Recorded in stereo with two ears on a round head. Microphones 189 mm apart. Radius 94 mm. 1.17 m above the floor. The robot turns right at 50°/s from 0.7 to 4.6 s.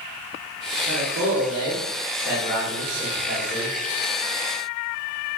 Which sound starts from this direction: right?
A man speaking, at 0.9 s.